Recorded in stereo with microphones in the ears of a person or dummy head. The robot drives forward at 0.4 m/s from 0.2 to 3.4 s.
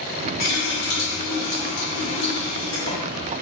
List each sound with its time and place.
0.4 s a running tap: 60° left (ahead or behind), 1.2 m; by 3.3 s 30° left (ahead or behind), 2 m